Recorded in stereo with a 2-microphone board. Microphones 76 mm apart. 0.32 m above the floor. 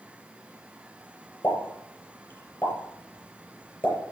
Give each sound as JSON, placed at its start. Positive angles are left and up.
{"t": 1.4, "sound": "a pop", "side_deg": 30, "distance_m": 5.0}